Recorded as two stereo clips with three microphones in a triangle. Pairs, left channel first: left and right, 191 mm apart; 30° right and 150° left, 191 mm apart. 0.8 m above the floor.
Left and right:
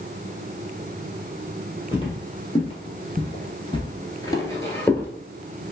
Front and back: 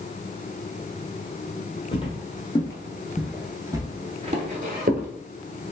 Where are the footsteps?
25° left, 1.4 m; by 5.1 s 165° left, 1.2 m.